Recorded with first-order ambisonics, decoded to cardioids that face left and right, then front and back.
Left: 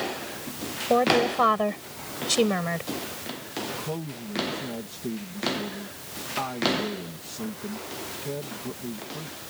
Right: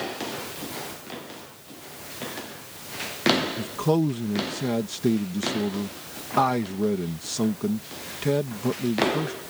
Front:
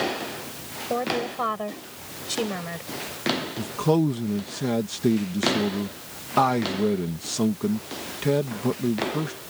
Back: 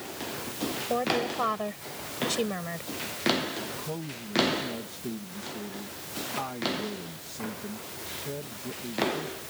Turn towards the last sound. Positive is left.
turn(degrees=-40)